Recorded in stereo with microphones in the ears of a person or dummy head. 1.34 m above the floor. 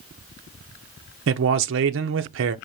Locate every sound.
1.3 s a man speaking: 60° right (ahead or behind), 0.6 m